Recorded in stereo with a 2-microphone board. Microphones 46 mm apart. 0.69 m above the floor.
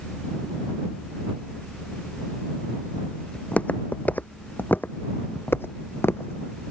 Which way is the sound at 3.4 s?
30° left (ahead or behind).